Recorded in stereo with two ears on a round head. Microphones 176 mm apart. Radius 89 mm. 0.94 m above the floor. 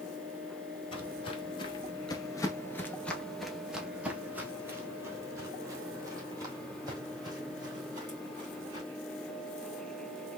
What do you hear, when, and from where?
0.9 s footsteps: 30° left (ahead or behind), 1.3 m; by 8.8 s 20° right (ahead or behind), 3.5 m